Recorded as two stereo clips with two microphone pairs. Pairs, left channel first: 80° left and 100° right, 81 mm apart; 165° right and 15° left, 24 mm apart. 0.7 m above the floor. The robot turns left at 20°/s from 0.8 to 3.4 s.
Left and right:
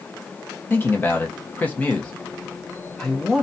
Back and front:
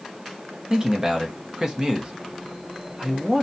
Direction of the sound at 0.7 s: 45° left.